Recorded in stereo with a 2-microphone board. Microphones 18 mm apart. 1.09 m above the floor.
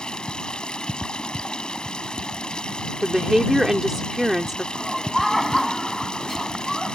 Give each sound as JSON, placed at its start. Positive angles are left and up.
{"t": 0.0, "sound": "running water", "side_deg": 65}
{"t": 3.0, "sound": "a woman speaking", "side_deg": -20}
{"t": 4.7, "sound": "laughter", "side_deg": 0}